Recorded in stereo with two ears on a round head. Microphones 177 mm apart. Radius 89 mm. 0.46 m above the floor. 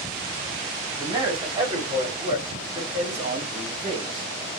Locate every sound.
1.0 s a man speaking: 25° right (ahead or behind), 1.4 m